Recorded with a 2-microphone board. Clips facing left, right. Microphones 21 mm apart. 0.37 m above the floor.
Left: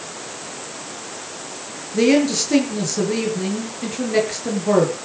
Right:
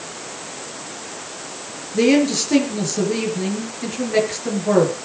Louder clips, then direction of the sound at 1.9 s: Even; 10° left (ahead or behind).